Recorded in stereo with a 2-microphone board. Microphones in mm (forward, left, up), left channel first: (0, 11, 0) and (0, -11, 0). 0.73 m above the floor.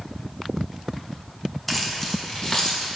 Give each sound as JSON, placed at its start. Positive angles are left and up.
{"t": 1.7, "sound": "keys jangling", "side_deg": 0, "distance_m": 0.8}